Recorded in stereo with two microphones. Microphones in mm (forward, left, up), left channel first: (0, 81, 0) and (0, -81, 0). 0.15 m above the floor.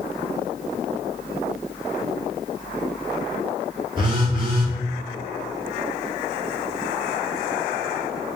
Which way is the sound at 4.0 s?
30° right (ahead or behind).